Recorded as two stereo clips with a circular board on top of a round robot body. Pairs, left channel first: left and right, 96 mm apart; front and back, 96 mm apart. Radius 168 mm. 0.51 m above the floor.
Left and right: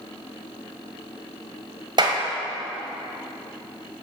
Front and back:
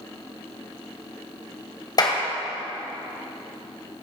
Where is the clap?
50° right, 2.5 m.